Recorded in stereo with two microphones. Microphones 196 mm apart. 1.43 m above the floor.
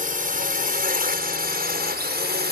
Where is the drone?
45° right (ahead or behind); by 2.5 s 55° right (ahead or behind).